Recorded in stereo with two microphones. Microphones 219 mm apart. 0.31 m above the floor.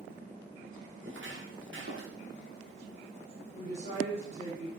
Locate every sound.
1.0 s footsteps: 60° right (ahead or behind), 5 m; by 2.1 s 65° right (ahead or behind), 6.5 m
3.5 s a woman speaking: 30° right (ahead or behind), 5.5 m